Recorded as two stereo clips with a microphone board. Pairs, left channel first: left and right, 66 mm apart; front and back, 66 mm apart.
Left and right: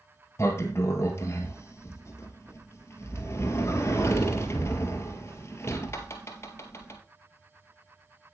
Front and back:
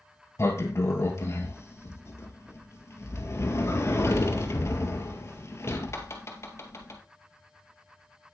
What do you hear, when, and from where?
0.4 s a sliding door: 45° left, 1.8 m